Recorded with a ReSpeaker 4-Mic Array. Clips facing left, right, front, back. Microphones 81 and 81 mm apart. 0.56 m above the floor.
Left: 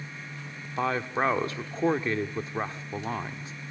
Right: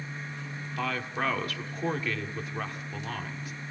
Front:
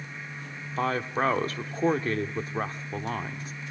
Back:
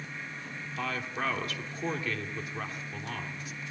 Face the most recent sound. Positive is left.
turn(degrees=35)